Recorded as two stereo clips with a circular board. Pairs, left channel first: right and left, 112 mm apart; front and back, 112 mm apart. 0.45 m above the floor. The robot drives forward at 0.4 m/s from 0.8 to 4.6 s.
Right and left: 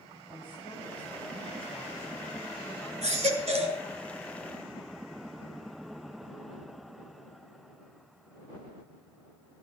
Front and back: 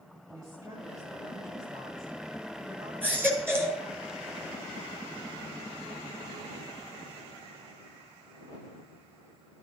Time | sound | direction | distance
0.3 | a woman speaking | 130° right | 6 m
3.0 | a baby crying | 105° left | 2.0 m